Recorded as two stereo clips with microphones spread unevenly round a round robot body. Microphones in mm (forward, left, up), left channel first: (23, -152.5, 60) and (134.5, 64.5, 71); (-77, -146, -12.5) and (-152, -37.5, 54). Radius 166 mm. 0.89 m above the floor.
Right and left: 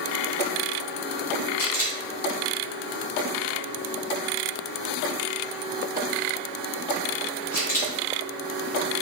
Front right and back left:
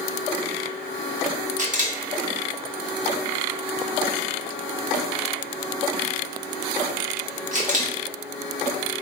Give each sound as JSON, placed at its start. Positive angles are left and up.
{"t": 1.6, "sound": "a camera shutter", "azimuth_deg": 160, "distance_m": 2.5}